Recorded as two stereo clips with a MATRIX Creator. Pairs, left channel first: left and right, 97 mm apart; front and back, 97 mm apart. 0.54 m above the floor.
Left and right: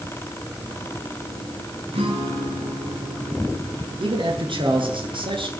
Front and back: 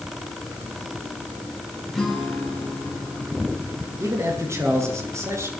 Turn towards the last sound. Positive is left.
turn(degrees=-120)